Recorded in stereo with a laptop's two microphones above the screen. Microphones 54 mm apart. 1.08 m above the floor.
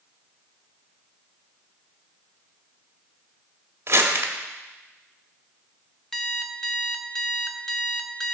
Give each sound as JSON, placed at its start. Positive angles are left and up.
{"t": 3.9, "sound": "crumpling", "side_deg": -55, "distance_m": 1.4}
{"t": 6.1, "sound": "an alarm clock", "side_deg": 5, "distance_m": 0.7}